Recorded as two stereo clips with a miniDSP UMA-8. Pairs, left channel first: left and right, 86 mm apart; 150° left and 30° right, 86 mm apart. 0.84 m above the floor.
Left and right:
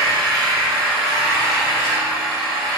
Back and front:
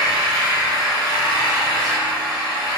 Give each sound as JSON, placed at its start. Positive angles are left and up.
{"t": 0.0, "sound": "an engine running", "azimuth_deg": 175, "distance_m": 1.1}